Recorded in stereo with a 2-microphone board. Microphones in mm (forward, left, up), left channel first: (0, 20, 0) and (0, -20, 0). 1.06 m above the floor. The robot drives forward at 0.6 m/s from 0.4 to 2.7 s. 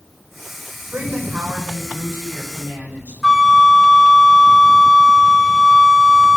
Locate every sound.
0.9 s a woman speaking: 60° right (ahead or behind), 4 m; by 3.1 s 50° right (ahead or behind), 5 m
3.2 s a flute: centre (ahead or behind), 0.8 m